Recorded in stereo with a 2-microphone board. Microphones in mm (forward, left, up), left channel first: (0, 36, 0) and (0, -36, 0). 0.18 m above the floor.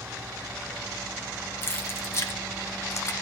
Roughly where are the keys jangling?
Left.